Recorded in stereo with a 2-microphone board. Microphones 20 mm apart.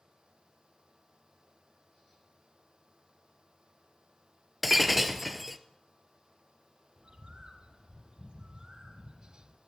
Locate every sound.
4.6 s breaking glass: 10° right (ahead or behind), 1.8 m
7.0 s a bird: 50° right (ahead or behind), 3 m